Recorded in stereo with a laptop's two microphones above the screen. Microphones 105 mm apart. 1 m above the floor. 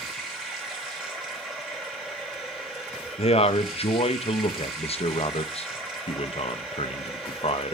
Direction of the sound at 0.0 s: Centre (ahead or behind).